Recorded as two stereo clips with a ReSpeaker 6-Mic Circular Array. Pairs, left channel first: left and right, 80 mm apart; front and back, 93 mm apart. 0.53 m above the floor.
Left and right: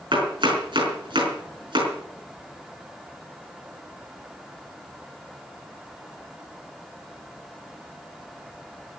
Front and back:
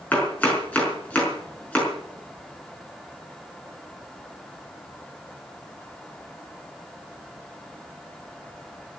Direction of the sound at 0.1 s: 75° right.